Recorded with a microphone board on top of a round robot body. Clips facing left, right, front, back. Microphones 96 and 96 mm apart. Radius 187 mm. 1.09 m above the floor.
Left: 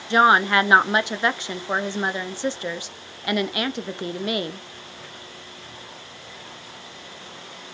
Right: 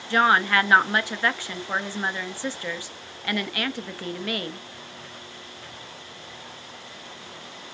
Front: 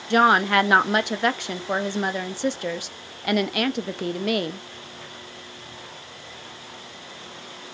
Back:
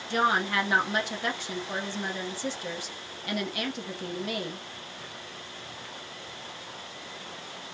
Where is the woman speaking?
20° left, 0.5 m.